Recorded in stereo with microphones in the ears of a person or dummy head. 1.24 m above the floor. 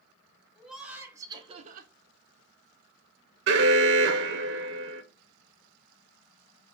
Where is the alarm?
60° right (ahead or behind), 0.7 m.